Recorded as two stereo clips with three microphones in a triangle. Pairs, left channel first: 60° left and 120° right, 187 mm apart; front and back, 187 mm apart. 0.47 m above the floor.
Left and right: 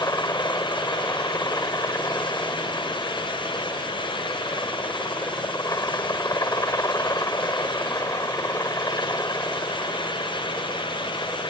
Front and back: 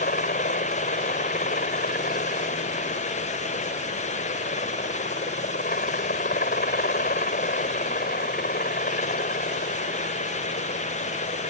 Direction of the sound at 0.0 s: 10° right.